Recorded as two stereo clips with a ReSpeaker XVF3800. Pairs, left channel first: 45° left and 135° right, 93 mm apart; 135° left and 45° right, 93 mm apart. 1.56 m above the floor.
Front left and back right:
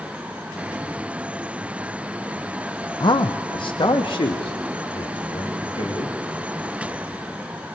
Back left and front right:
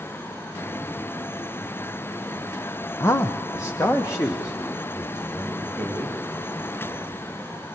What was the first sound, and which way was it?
A man speaking, 80° left.